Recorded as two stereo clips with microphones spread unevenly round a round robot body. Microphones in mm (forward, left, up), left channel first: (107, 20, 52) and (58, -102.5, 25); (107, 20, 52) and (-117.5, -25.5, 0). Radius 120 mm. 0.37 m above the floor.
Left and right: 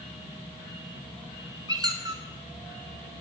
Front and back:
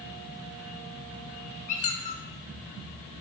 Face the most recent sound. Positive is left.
turn(degrees=-55)